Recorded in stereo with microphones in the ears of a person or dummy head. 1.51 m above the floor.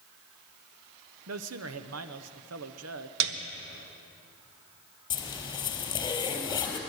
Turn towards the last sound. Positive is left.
turn(degrees=20)  # may be behind; listen again after turning